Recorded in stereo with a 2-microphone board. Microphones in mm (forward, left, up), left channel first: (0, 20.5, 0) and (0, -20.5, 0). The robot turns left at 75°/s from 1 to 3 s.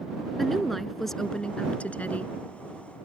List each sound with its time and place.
0.4 s a woman speaking: straight behind; by 2.3 s 80° left